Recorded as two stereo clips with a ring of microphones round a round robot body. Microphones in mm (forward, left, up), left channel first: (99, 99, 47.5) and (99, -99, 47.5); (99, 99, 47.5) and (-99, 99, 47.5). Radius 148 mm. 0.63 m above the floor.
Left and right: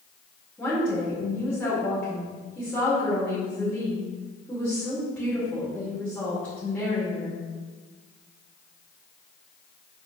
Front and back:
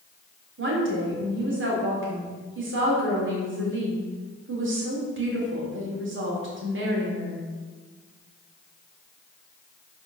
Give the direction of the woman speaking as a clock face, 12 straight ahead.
6 o'clock.